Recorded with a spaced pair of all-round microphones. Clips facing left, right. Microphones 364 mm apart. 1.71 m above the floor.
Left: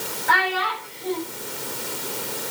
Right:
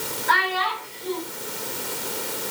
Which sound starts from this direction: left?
A child speaking, at 0.3 s.